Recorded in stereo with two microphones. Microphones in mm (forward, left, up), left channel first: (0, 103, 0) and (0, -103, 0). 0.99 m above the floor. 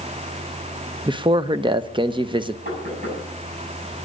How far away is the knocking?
About 8 m.